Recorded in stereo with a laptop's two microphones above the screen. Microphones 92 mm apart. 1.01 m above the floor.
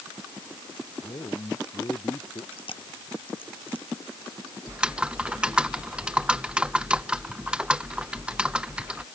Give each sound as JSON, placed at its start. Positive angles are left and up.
{"t": 1.0, "sound": "a man speaking", "side_deg": 45}
{"t": 2.5, "sound": "chewing", "side_deg": 70}
{"t": 4.7, "sound": "typing on a keyboard", "side_deg": -10}